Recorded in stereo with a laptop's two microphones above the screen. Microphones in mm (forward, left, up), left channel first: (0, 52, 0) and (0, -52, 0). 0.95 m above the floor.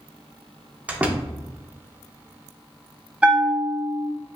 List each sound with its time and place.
0.9 s a door slam: 15° right (ahead or behind), 0.6 m
3.2 s a bell: 10° right (ahead or behind), 0.8 m